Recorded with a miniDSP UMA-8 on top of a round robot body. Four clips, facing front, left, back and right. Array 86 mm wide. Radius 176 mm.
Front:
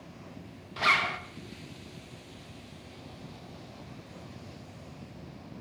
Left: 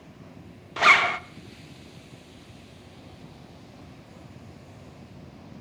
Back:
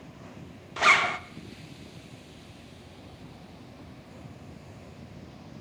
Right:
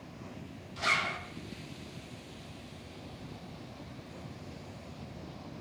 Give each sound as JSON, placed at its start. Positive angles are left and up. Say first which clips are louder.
{"t": 0.8, "sound": "a zipper", "louder": "left 12 dB, back 4 dB", "azimuth_deg": 110, "distance_m": 0.9}